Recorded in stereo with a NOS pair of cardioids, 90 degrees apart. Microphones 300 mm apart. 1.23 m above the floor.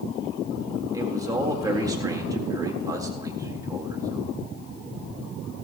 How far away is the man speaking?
About 3.5 m.